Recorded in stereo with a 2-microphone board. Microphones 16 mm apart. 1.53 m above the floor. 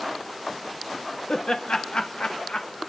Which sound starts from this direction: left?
Laughter, at 1.3 s.